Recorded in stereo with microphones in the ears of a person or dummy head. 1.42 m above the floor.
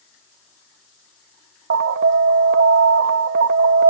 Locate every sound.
1.7 s an alarm: 50° right (ahead or behind), 0.5 m